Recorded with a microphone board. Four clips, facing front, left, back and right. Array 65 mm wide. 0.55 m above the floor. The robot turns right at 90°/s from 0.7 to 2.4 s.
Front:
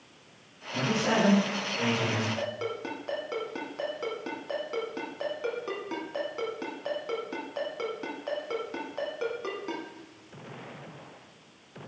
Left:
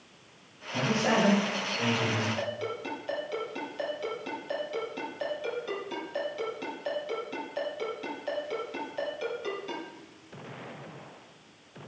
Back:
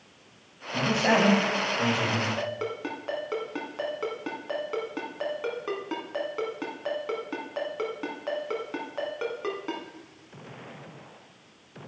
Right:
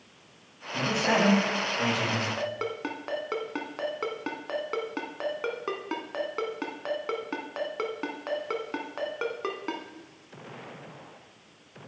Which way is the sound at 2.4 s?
100° right.